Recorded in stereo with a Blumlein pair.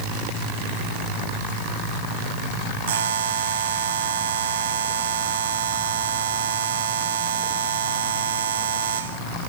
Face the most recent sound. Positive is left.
turn(degrees=-60)